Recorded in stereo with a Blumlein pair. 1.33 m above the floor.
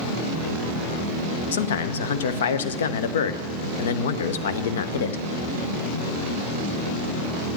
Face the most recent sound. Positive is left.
turn(degrees=60)